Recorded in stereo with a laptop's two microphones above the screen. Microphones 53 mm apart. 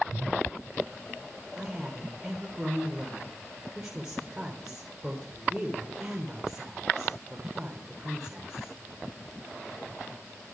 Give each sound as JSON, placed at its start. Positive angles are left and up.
{"t": 1.6, "sound": "a woman speaking", "side_deg": -10, "distance_m": 3.5}